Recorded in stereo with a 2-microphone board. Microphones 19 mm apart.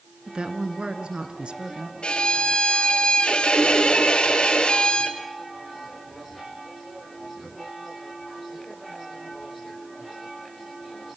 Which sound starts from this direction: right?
A woman speaking, at 0.3 s.